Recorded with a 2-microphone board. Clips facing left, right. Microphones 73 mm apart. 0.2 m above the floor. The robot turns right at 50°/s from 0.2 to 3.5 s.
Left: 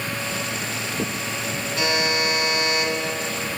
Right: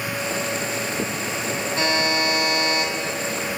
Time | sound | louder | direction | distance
1.8 | a buzzer | right 1 dB | 125° right | 1.7 m